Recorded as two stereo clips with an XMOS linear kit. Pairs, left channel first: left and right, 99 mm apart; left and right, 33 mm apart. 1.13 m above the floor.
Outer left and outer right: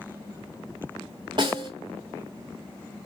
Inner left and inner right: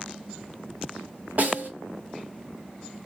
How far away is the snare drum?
About 1.5 m.